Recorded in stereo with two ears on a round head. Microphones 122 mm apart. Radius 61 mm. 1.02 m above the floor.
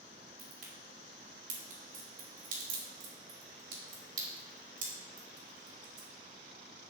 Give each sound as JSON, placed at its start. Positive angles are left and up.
{"t": 0.4, "sound": "a crack", "side_deg": -65, "distance_m": 3.5}